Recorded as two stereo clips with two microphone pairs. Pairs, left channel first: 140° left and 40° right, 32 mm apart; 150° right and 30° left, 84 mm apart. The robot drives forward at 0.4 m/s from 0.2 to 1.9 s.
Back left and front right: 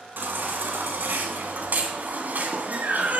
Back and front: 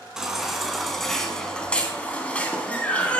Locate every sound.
0.2 s a baby crying: 50° right, 1.8 m; by 3.2 s 75° right, 1.5 m